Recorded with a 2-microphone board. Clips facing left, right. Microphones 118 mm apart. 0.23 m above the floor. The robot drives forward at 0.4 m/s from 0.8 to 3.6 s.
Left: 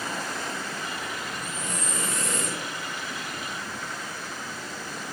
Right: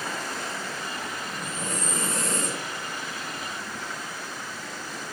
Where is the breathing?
50° right (ahead or behind), 5.5 m; by 2.6 s 45° right (ahead or behind), 6 m.